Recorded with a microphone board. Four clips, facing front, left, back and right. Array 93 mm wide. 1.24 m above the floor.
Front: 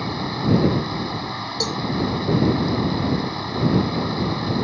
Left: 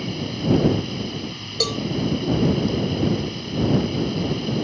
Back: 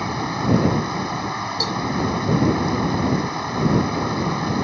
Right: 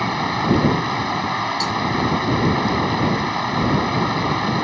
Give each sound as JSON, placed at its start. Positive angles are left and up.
{"t": 0.0, "sound": "running water", "azimuth_deg": -105}
{"t": 1.6, "sound": "a cowbell", "azimuth_deg": 85}